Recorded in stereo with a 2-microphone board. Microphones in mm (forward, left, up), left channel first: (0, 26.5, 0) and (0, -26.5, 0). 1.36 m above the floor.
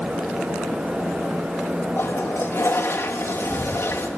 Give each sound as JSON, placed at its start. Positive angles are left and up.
{"t": 2.0, "sound": "a toilet flushing", "side_deg": 55, "distance_m": 1.4}